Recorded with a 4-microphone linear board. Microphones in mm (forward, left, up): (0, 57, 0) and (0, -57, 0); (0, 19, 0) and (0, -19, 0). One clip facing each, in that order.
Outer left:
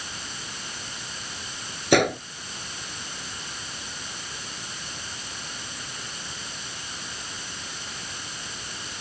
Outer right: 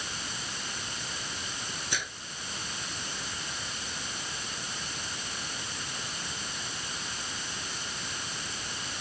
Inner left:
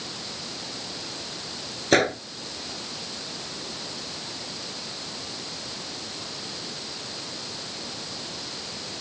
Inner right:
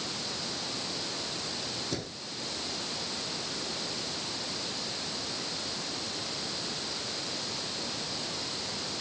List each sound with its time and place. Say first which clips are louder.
1.9 s a gunshot: outer left 23 dB, inner left 17 dB; 65° left (ahead or behind)